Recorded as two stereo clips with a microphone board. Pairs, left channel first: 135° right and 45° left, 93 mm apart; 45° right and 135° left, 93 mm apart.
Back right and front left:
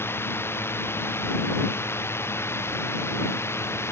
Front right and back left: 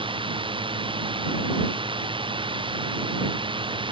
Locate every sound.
0.0 s a drone: 160° left